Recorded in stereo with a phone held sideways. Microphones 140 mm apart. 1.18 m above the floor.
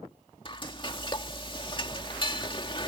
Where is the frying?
35° left (ahead or behind).